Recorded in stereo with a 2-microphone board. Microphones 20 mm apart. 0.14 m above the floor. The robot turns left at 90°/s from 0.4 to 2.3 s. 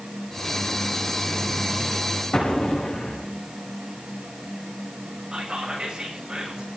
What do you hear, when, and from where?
2.3 s an explosion: 55° left (ahead or behind), 5 m
5.3 s whispering: 35° right (ahead or behind), 8.5 m